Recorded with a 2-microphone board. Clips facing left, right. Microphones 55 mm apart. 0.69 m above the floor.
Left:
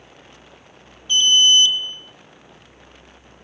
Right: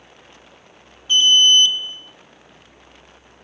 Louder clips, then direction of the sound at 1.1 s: Right 1 dB; 15° right (ahead or behind).